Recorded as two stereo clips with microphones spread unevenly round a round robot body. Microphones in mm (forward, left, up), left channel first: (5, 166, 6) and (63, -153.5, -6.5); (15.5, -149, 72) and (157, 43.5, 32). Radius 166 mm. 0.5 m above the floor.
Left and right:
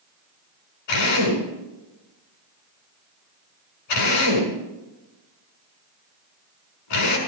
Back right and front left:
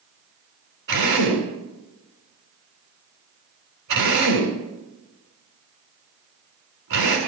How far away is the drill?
About 6 m.